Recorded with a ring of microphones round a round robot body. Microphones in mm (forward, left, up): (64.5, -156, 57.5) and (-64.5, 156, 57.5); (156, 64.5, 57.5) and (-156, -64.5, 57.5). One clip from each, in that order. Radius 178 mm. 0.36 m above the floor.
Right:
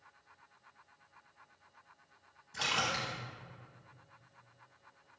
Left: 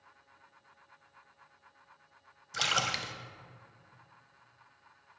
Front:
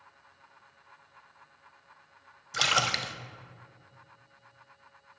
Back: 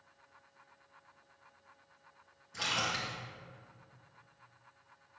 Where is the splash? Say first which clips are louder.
Left 3 dB, front 8 dB; 55° left, 0.5 m.